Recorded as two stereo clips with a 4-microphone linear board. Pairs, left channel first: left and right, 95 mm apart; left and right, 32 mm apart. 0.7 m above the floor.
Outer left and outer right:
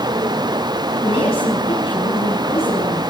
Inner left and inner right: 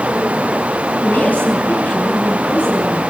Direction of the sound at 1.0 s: 70° left (ahead or behind).